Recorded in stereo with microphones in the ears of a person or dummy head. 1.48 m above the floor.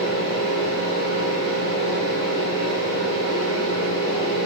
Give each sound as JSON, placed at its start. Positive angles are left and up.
{"t": 0.0, "sound": "a fan", "side_deg": 45, "distance_m": 2.0}